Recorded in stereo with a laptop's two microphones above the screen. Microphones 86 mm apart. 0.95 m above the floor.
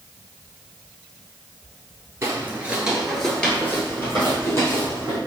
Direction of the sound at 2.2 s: 30° right (ahead or behind).